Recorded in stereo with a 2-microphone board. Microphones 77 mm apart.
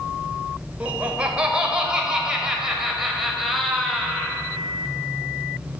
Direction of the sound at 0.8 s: 15° right (ahead or behind).